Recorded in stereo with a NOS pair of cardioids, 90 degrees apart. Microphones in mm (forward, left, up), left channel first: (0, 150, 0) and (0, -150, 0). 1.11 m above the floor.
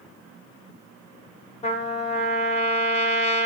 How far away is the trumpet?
About 0.9 m.